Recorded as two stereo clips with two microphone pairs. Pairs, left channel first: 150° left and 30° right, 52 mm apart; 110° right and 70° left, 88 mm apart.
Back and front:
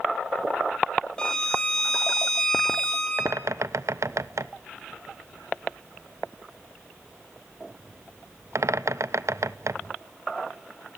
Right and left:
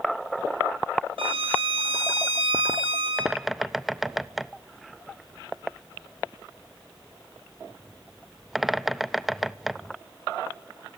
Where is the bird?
20° right, 0.6 m.